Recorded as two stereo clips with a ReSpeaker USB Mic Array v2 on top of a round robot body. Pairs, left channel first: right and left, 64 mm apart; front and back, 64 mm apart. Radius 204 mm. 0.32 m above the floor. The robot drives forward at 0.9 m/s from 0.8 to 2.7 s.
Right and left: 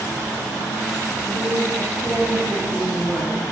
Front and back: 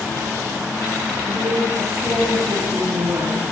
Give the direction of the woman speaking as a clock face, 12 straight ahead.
7 o'clock.